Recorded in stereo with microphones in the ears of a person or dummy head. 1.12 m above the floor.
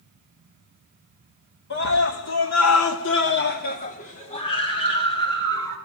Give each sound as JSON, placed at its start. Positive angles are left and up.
{"t": 1.7, "sound": "a scream", "side_deg": 50, "distance_m": 2.5}